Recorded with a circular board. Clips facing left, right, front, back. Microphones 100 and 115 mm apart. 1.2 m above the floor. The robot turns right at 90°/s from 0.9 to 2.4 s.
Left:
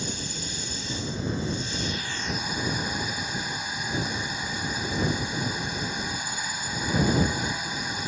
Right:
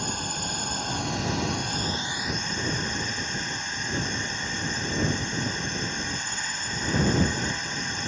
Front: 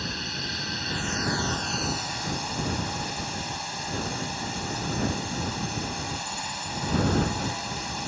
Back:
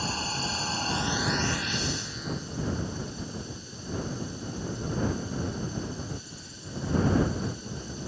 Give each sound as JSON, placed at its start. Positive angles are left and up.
{"t": 0.0, "sound": "a drone", "azimuth_deg": -125}